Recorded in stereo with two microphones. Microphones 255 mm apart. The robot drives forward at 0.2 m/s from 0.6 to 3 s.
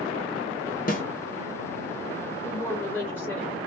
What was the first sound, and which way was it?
A snare drum, 35° left (ahead or behind).